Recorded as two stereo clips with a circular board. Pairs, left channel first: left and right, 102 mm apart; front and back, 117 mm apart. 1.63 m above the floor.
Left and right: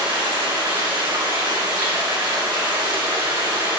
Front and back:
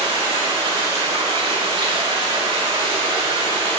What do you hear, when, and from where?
0.0 s running water: 135° right, 3 m